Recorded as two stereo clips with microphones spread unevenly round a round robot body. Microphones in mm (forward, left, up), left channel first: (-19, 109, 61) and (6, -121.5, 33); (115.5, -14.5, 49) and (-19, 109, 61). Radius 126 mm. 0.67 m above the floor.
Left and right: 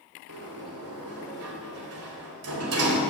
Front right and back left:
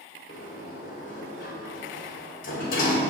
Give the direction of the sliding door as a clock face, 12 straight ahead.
3 o'clock.